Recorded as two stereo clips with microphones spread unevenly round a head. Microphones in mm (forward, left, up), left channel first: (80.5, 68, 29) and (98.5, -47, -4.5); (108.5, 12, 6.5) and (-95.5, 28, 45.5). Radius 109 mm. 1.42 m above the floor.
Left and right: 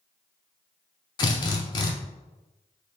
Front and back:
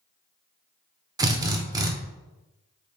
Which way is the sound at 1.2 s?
120° left.